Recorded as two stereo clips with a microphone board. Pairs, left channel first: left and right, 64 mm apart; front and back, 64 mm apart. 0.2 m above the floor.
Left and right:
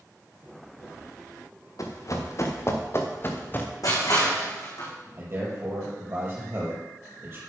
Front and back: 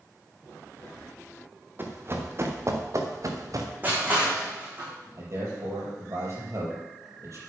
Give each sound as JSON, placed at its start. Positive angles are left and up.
{"t": 1.8, "sound": "running footsteps", "azimuth_deg": 125, "distance_m": 2.5}
{"t": 3.8, "sound": "crushing", "azimuth_deg": 115, "distance_m": 5.5}
{"t": 5.2, "sound": "a man speaking", "azimuth_deg": -145, "distance_m": 6.0}